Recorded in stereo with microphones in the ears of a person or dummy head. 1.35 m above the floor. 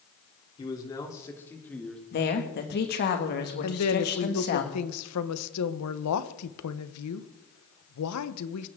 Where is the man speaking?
20° left (ahead or behind), 4 m; by 2.0 s centre (ahead or behind), 2.5 m.